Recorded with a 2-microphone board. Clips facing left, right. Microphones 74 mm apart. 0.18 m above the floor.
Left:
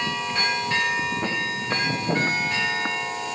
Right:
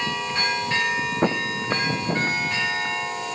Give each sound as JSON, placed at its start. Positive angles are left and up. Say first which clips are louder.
{"t": 1.2, "sound": "footsteps", "louder": "right 4 dB", "side_deg": -50, "distance_m": 0.9}